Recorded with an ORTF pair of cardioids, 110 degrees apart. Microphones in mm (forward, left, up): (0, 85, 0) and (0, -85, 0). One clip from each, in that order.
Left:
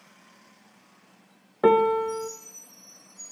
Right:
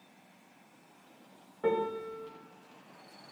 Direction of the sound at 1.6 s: 70° left.